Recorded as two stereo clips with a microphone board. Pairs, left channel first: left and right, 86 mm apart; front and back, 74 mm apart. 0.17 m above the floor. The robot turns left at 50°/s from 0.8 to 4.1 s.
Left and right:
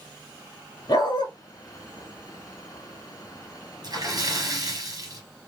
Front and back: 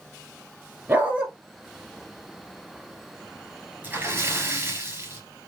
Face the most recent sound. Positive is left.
turn(degrees=-125)